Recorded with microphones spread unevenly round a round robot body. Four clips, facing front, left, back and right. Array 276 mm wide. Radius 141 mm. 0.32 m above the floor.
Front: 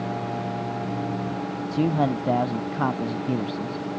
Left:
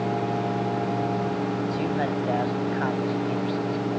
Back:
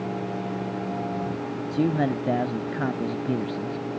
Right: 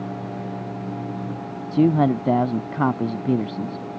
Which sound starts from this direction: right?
A man speaking, at 1.7 s.